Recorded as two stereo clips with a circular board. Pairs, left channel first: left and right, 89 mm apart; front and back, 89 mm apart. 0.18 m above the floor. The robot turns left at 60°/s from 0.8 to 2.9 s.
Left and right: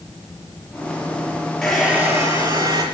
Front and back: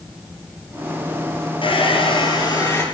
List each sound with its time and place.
1.6 s a hair dryer: 5° left, 4.5 m; by 2.8 s 65° right, 4.5 m